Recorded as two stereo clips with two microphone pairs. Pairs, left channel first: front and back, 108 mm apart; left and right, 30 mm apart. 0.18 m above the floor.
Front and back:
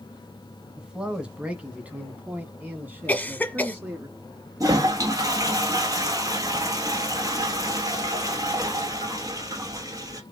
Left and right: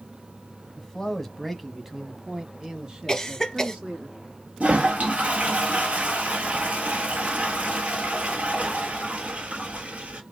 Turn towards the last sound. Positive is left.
turn(degrees=-125)